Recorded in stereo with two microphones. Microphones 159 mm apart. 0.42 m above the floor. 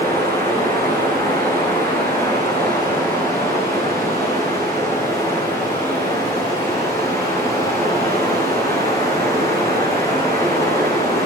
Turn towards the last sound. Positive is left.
turn(degrees=20)  # may be behind; listen again after turning